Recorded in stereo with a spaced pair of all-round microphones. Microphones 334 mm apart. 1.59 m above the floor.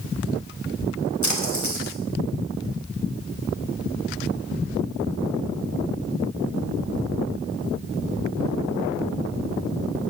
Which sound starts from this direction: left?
A splash, at 1.2 s.